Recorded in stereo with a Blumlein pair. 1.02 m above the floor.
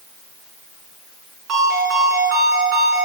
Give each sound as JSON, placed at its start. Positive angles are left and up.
{"t": 1.5, "sound": "a ringtone", "azimuth_deg": -35, "distance_m": 7.0}